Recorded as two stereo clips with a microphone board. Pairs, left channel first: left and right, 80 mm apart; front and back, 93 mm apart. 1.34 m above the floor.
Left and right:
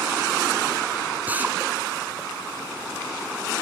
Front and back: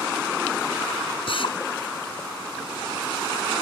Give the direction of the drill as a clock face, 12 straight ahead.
1 o'clock.